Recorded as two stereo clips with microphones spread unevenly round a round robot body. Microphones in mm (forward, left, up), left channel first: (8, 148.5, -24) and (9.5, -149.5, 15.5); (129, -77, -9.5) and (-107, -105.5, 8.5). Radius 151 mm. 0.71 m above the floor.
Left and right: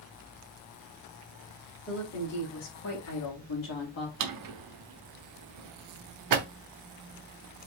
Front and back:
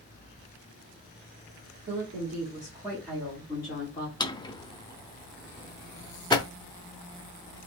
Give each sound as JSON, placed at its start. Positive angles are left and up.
{"t": 1.9, "sound": "a woman speaking", "azimuth_deg": 140, "distance_m": 1.4}
{"t": 4.2, "sound": "a drawer", "azimuth_deg": -70, "distance_m": 0.6}